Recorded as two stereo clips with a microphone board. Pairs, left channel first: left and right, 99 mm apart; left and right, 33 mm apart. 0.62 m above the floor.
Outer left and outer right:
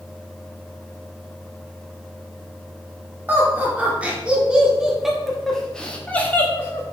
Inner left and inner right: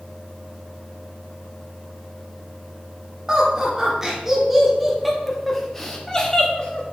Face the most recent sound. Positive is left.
turn(degrees=30)  # may be behind; listen again after turning